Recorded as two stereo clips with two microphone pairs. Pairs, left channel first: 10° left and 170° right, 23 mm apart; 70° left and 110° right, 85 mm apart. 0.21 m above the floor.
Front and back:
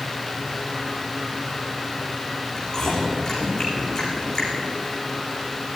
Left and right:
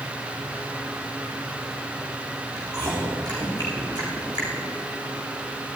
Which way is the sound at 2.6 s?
65° right.